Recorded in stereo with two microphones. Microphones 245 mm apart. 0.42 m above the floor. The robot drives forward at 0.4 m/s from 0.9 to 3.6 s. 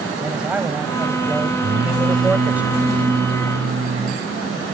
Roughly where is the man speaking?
Centre.